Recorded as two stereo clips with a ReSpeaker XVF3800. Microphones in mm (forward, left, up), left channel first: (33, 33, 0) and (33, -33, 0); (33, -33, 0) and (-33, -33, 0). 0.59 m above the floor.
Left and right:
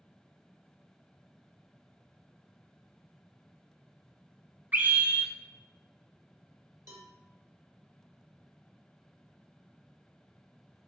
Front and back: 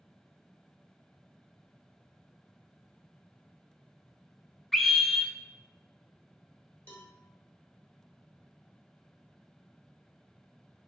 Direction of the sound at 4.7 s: 80° right.